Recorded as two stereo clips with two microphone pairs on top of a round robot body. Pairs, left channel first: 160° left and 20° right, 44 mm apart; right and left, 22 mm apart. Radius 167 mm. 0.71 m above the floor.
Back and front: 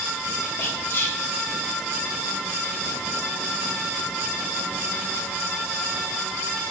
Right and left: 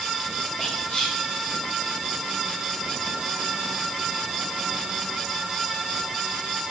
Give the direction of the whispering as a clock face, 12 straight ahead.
5 o'clock.